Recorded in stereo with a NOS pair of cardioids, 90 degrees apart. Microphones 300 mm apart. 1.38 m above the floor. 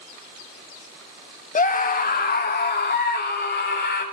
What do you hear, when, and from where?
1.6 s a scream: 25° left, 1.8 m; by 4.0 s 35° left, 5 m